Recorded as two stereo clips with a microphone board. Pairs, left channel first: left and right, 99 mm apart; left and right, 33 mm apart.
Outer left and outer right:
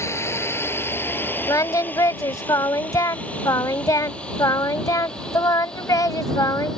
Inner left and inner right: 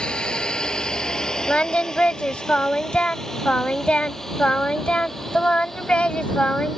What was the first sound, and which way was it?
A drone, 25° left (ahead or behind).